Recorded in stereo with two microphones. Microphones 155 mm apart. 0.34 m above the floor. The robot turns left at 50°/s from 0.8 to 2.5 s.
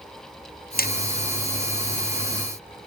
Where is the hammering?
75° left (ahead or behind); by 0.9 s 80° left.